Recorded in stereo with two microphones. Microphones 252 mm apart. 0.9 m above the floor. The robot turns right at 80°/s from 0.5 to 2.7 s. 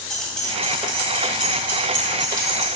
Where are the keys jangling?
Centre (ahead or behind), 1.8 m; by 2.7 s 10° right (ahead or behind), 1.8 m.